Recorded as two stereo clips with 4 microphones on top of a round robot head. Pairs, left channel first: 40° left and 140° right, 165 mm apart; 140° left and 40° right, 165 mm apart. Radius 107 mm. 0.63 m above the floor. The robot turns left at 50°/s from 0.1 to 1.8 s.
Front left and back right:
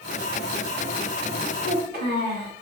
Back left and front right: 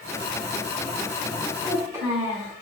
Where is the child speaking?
105° right, 1.8 m; by 2.5 s 115° right, 1.8 m.